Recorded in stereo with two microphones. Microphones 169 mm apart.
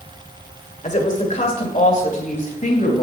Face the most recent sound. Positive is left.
turn(degrees=50)  # may be behind; listen again after turning